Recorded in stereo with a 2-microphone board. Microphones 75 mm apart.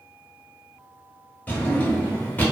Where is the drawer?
25° left (ahead or behind), 0.7 m.